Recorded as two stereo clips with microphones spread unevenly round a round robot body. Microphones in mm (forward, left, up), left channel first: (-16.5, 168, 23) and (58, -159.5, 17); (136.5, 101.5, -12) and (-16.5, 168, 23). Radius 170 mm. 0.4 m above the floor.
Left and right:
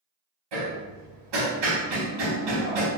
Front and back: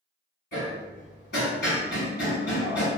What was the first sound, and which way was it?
Hammering, 70° right.